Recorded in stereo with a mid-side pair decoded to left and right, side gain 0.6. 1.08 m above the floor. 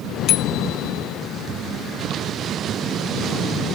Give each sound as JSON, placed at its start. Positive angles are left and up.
{"t": 0.3, "sound": "a bicycle bell", "azimuth_deg": 60}